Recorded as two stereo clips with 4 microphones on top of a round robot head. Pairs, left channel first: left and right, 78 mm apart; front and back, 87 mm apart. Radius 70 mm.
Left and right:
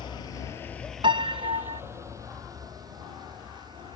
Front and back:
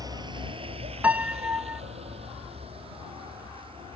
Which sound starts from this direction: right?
A piano, at 1.0 s.